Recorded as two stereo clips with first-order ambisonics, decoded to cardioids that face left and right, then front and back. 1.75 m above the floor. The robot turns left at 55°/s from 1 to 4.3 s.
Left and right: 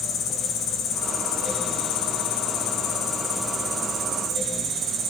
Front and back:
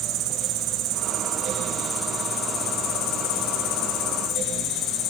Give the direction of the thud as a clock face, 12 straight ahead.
No thud in this recording.